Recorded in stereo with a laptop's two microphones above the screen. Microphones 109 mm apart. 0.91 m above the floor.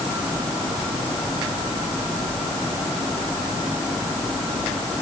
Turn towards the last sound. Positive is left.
No sound to turn to.